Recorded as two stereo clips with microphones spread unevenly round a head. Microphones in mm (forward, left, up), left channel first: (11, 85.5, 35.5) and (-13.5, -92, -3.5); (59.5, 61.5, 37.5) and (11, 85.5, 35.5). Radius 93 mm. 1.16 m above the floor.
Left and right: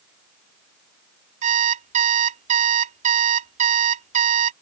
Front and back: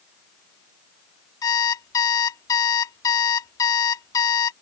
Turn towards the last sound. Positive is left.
turn(degrees=-40)